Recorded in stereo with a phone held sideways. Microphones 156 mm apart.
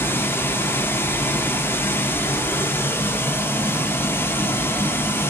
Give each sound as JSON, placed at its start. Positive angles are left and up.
{"t": 0.0, "sound": "running water", "side_deg": 15, "distance_m": 0.8}